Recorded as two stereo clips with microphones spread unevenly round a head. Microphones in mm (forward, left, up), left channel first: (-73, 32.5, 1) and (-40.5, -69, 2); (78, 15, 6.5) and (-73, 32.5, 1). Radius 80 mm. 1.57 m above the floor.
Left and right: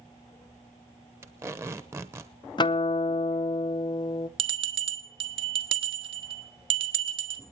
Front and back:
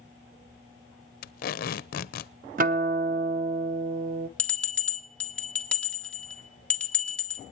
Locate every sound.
1.2 s tape being pulled: straight ahead, 0.7 m
2.6 s a guitar: 150° left, 0.9 m
4.4 s a bell: 85° right, 1.5 m